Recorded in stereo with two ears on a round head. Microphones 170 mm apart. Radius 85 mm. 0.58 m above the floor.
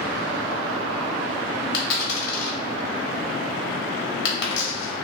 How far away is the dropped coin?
About 0.9 m.